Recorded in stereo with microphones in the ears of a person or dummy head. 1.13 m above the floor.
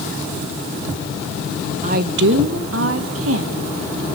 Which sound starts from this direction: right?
A woman speaking, at 1.8 s.